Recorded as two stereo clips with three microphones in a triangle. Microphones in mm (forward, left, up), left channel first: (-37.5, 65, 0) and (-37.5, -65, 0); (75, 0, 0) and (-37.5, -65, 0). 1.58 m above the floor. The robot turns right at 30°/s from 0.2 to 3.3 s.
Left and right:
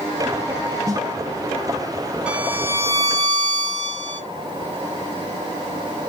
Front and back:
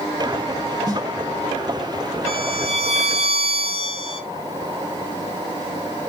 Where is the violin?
170° right, 1.4 m; by 4.2 s 140° right, 1.4 m.